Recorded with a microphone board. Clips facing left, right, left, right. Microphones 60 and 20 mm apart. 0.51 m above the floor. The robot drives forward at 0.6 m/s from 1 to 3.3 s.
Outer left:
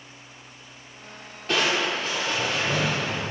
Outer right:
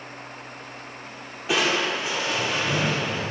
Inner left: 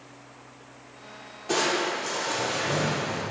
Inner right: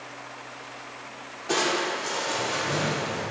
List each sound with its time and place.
1.5 s crushing: 10° right (ahead or behind), 0.7 m; by 3.2 s 5° right (ahead or behind), 1.6 m